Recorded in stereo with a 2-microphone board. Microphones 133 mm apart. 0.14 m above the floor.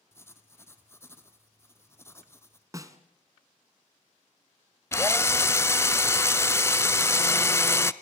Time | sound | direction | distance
0.1 | writing | 20° left (ahead or behind) | 1.8 m
2.7 | a snare drum | 25° right (ahead or behind) | 1.6 m
4.9 | a drill | 20° left (ahead or behind) | 0.6 m